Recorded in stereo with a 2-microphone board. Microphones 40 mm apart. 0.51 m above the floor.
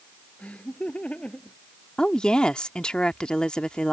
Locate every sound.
0.4 s laughter: 30° left (ahead or behind)
2.0 s a woman speaking: 20° left (ahead or behind)